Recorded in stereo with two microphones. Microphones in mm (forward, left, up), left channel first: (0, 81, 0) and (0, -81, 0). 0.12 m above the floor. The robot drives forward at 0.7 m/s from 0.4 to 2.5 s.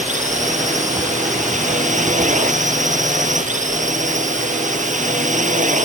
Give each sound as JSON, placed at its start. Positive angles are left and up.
{"t": 0.0, "sound": "a drone", "side_deg": -55}